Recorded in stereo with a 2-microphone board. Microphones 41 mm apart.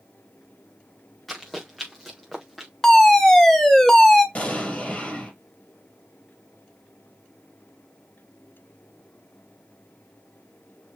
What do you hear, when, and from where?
1.3 s running footsteps: 5° left (ahead or behind), 4 m; by 2.7 s centre (ahead or behind), 3.5 m
2.8 s a fire alarm: 15° left (ahead or behind), 1.8 m
4.3 s an explosion: 35° left (ahead or behind), 3.5 m